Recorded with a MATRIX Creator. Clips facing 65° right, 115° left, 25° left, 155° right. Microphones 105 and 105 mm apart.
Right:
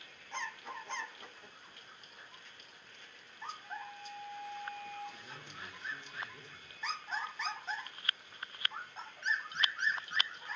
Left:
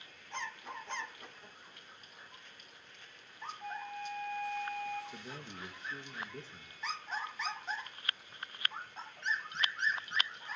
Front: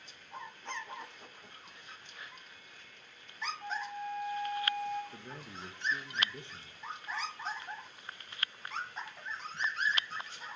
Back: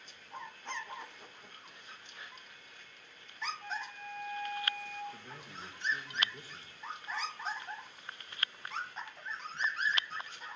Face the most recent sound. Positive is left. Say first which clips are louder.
# left 4 dB, front 2 dB
turn(degrees=75)